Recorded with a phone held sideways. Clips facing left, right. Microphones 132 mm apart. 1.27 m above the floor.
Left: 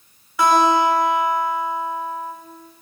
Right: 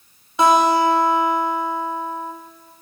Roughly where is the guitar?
Right.